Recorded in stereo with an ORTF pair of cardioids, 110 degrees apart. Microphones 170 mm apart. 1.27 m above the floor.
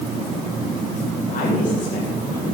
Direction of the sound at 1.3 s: 50° left.